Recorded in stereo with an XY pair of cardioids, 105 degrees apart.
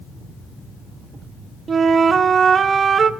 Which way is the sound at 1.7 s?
45° right.